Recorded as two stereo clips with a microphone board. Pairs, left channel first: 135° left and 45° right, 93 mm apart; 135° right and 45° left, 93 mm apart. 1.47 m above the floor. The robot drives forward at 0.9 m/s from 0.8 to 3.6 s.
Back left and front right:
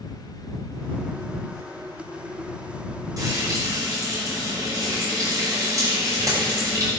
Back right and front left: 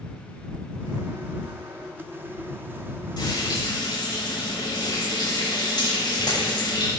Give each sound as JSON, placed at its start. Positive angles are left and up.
{"t": 3.2, "sound": "frying", "azimuth_deg": -90, "distance_m": 7.0}